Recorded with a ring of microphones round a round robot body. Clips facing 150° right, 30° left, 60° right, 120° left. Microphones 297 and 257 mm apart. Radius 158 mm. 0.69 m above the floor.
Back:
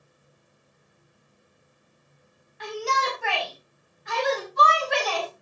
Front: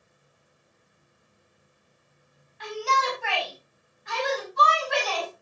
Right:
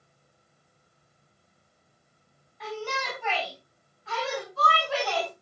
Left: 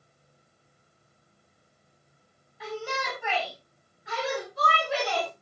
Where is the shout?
155° right, 5.5 m; by 5.3 s 170° right, 6 m.